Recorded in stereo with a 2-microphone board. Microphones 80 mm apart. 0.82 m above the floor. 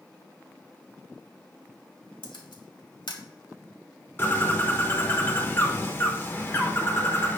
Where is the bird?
30° left (ahead or behind), 1.1 m.